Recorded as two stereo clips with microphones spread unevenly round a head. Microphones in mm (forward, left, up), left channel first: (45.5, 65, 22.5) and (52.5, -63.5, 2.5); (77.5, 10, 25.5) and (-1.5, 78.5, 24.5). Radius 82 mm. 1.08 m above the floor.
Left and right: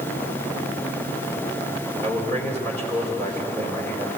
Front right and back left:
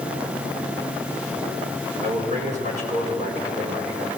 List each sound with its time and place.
2.0 s a man speaking: 170° left, 4 m